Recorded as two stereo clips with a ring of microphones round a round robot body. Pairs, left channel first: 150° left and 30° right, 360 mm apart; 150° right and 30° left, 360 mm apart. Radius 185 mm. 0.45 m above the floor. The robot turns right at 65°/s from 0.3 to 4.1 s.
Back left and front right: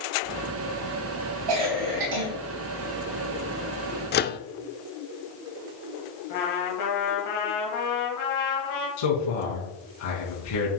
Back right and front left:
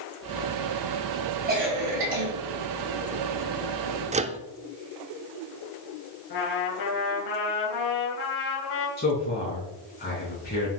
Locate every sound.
1.5 s a cough: 35° right, 4 m; by 2.3 s 15° left, 4 m
4.1 s a microwave: 95° left, 0.7 m
6.3 s a trumpet: 175° right, 3 m
9.0 s a man speaking: 145° left, 4.5 m